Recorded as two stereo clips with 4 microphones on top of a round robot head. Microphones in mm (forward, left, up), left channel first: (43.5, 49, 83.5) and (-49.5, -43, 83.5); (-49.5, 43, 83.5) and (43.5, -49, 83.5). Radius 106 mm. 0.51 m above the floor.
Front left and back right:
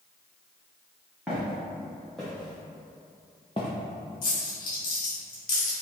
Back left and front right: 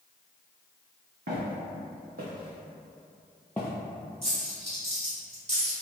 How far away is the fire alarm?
I don't hear a fire alarm.